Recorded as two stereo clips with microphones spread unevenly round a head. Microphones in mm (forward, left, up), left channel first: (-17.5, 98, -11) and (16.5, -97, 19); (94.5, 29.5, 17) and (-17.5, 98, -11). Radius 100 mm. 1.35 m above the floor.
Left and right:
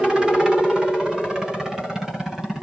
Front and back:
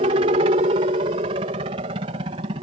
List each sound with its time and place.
0.0 s a helicopter: 170° right; by 2.6 s 175° right